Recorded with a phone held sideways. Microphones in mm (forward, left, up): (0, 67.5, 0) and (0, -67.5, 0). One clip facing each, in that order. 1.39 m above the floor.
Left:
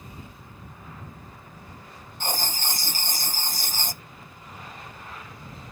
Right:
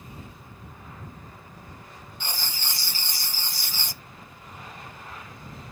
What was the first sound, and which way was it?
Writing, 45° left (ahead or behind).